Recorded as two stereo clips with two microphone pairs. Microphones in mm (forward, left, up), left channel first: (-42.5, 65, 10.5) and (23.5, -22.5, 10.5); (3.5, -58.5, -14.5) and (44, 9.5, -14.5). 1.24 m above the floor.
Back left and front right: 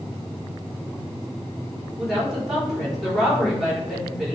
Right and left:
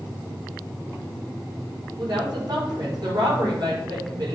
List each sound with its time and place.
2.0 s a woman speaking: 35° left, 4 m